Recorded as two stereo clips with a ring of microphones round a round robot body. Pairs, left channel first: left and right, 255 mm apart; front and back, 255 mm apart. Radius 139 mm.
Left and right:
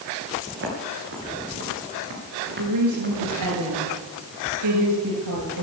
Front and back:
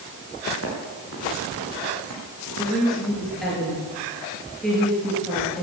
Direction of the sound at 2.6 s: 90° right.